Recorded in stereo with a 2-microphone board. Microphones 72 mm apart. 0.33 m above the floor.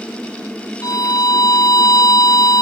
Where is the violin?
55° left (ahead or behind).